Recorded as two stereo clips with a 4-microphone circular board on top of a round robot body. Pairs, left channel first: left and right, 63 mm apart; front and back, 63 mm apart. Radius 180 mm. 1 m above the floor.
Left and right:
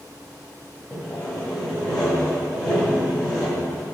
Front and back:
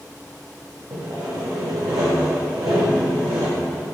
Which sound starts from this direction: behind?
Sawing, at 0.9 s.